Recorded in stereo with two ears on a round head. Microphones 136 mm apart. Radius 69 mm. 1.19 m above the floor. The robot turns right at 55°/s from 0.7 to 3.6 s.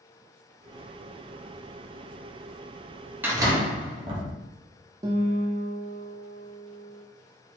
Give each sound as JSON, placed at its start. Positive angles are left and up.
{"t": 3.2, "sound": "a door slam", "side_deg": -15, "distance_m": 1.2}
{"t": 5.0, "sound": "a guitar", "side_deg": -25, "distance_m": 0.7}